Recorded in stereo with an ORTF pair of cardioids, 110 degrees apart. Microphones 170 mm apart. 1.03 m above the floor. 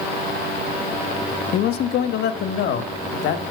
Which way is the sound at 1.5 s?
65° left.